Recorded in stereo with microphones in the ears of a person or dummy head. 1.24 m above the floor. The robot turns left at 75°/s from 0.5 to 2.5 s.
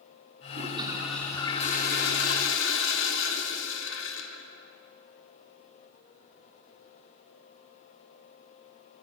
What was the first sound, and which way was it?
A toilet flushing, 135° right.